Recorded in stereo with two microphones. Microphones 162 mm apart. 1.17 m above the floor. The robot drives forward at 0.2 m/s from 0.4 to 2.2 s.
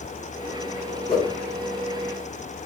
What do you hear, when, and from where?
1.1 s a whoosh: 55° left (ahead or behind), 1.7 m